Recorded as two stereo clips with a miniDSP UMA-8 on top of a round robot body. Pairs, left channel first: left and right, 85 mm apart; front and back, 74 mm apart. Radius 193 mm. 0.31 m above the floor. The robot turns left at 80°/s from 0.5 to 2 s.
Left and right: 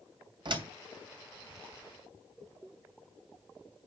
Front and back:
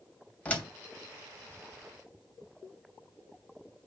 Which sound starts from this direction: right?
A door slam, at 0.5 s.